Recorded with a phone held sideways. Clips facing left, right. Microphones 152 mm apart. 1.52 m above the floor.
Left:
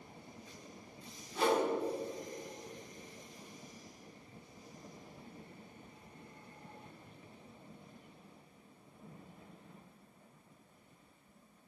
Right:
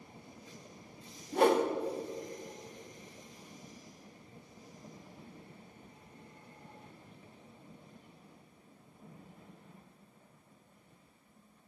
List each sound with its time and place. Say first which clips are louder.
1.3 s a whoosh: right 5 dB; 55° right (ahead or behind), 1.7 m